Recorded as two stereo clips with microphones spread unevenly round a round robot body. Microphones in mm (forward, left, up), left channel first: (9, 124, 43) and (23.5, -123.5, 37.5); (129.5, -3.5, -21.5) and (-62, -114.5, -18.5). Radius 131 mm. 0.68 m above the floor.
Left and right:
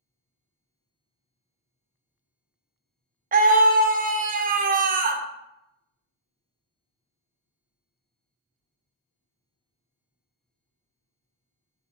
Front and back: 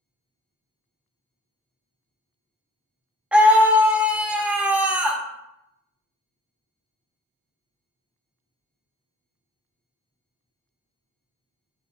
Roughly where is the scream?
Right.